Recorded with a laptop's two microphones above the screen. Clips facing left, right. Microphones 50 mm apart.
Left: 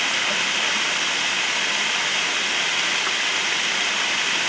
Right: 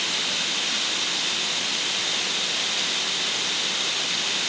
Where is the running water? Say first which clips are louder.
Left 6 dB; 40° left (ahead or behind).